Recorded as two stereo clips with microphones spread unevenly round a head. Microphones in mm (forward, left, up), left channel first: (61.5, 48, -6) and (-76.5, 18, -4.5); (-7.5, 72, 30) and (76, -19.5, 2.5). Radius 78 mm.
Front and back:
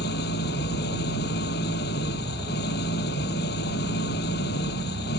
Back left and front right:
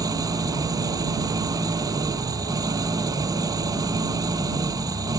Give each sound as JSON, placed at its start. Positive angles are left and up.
{"t": 0.0, "sound": "an engine running", "azimuth_deg": 15}